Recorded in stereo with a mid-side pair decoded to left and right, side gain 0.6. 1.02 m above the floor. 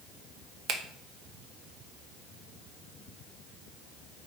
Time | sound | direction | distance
0.7 | a finger snap | 55° right | 0.6 m